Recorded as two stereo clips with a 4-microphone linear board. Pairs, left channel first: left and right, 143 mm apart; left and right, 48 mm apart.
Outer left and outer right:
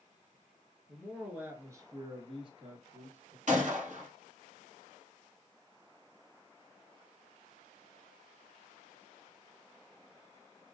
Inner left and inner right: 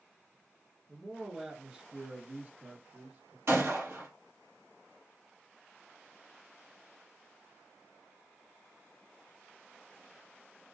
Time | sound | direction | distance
0.9 | a man speaking | centre (ahead or behind) | 1.4 m
3.5 | a gunshot | 60° right (ahead or behind) | 2.5 m